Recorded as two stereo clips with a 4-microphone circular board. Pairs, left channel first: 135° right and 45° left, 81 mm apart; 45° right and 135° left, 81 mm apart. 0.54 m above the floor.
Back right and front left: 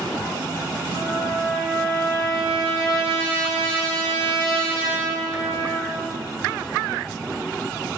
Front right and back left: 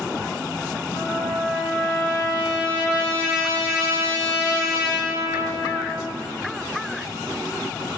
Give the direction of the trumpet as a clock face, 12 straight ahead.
8 o'clock.